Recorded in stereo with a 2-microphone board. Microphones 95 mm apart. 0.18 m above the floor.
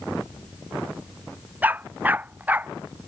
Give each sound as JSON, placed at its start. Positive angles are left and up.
{"t": 1.6, "sound": "a dog barking", "side_deg": -15}